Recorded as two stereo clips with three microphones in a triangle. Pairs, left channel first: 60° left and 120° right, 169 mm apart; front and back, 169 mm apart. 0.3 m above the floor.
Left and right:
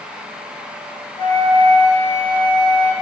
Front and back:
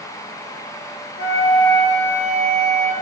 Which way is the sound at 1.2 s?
125° left.